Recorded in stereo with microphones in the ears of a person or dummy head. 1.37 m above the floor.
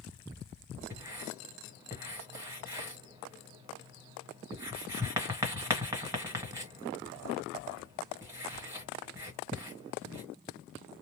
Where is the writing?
15° right (ahead or behind), 1.4 m.